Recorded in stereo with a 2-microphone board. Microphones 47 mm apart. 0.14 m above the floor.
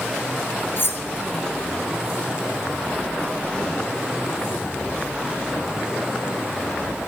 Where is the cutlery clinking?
55° left (ahead or behind), 1.8 m.